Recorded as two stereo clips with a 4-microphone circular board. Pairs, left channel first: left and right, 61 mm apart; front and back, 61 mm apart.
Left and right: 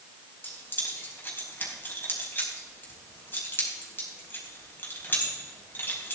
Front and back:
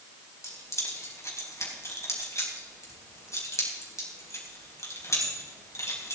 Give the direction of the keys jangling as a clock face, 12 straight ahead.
11 o'clock.